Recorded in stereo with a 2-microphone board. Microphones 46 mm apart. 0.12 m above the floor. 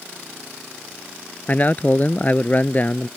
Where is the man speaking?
35° left (ahead or behind).